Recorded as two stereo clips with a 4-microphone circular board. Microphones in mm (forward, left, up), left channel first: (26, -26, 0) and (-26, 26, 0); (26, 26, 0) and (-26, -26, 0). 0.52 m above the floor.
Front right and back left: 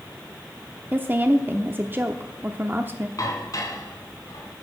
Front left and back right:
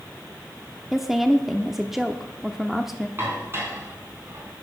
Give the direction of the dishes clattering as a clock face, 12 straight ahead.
3 o'clock.